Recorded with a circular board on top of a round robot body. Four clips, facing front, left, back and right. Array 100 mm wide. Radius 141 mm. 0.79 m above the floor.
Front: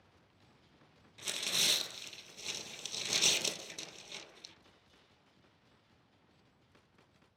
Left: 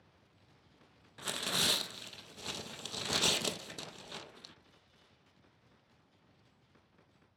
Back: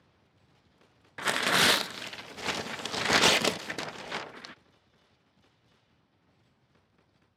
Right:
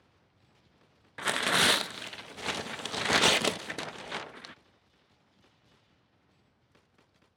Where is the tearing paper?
145° right, 0.6 m.